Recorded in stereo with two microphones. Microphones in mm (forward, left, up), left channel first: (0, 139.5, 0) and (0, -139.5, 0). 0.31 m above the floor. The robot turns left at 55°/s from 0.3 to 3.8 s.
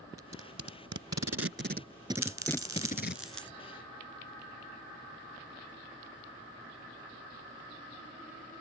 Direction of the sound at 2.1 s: 65° right (ahead or behind).